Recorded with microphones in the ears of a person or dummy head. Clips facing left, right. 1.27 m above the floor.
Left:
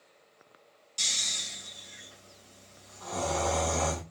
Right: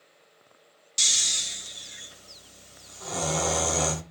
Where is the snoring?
25° right (ahead or behind), 0.6 m.